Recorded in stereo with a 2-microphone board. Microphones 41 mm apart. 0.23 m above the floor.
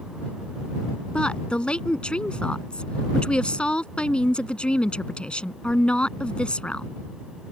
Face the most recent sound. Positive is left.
turn(degrees=25)  # may be behind; listen again after turning